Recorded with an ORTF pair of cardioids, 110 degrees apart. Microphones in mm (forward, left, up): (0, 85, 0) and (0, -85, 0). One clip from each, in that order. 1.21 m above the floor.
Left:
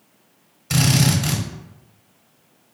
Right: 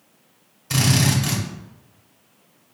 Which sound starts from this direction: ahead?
A drill, at 0.7 s.